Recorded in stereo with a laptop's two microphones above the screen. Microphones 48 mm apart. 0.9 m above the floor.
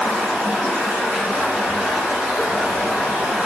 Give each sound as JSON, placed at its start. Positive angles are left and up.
{"t": 0.0, "sound": "running water", "side_deg": -40, "distance_m": 1.3}